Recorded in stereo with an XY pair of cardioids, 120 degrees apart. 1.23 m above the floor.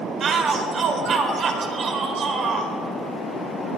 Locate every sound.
0.2 s a shout: 45° right, 4 m